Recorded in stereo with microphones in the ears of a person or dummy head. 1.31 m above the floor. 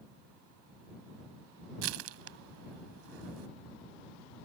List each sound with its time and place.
1.8 s crushing: 85° right